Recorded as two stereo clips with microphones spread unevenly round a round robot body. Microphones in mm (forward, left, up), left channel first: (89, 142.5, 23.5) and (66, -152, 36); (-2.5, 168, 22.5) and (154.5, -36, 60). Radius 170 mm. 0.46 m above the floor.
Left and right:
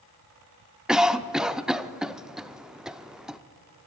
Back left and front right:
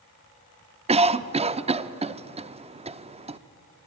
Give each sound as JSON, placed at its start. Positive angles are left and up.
{"t": 0.9, "sound": "a cough", "azimuth_deg": -5, "distance_m": 0.7}